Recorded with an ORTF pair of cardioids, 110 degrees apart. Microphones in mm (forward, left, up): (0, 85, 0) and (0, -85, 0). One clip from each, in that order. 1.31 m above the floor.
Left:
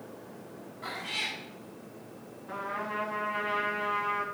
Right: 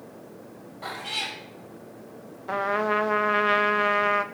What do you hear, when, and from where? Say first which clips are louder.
0.8 s a cat meowing: right 3 dB; 50° right, 3 m
2.5 s a trumpet: right 10 dB; 65° right, 0.7 m